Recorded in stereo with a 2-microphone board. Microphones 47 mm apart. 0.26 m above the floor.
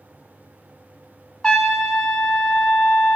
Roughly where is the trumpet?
Centre.